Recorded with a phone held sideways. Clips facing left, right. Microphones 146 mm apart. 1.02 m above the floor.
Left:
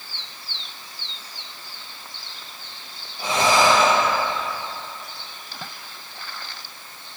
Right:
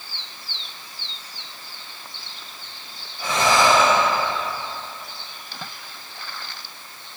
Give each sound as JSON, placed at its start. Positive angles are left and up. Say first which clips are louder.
{"t": 3.2, "sound": "breathing", "louder": "even", "side_deg": 35, "distance_m": 1.9}